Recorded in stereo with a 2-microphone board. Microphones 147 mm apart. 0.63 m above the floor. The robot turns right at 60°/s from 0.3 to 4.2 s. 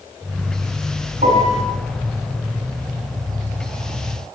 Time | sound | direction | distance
1.2 | a piano | 70° right (ahead or behind) | 2.5 m